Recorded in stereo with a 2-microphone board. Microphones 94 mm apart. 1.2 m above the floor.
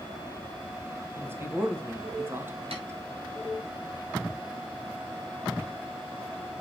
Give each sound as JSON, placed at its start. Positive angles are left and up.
{"t": 1.2, "sound": "a man speaking", "side_deg": -25, "distance_m": 1.6}
{"t": 2.7, "sound": "tapping", "side_deg": -85, "distance_m": 4.0}